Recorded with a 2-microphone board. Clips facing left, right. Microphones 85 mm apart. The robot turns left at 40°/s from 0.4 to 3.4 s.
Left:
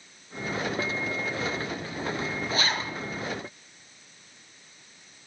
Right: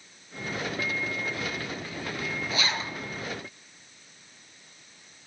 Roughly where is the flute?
No flute in this recording.